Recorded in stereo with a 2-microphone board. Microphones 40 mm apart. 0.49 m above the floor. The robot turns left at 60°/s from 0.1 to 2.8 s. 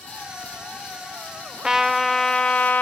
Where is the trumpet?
160° right, 0.6 m; by 2.8 s 130° left, 0.6 m.